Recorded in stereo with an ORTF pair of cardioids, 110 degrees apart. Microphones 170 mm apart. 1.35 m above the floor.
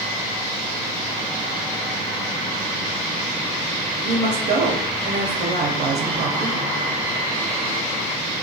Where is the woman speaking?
65° right, 0.6 m.